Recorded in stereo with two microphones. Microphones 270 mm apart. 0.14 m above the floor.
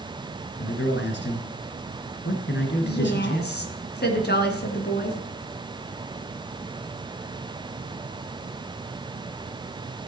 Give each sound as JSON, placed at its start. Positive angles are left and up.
{"t": 0.6, "sound": "a man speaking", "side_deg": 45, "distance_m": 1.8}
{"t": 2.8, "sound": "a woman speaking", "side_deg": 40, "distance_m": 2.0}